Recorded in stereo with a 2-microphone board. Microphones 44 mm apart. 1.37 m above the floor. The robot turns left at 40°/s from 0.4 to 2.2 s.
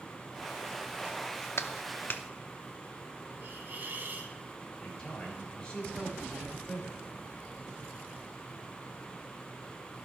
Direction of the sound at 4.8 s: 20° left (ahead or behind).